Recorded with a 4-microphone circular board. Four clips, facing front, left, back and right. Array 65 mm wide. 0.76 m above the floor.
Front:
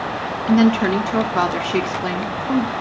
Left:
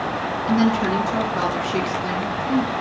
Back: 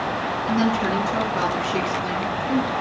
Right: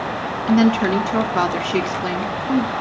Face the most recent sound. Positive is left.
turn(degrees=-35)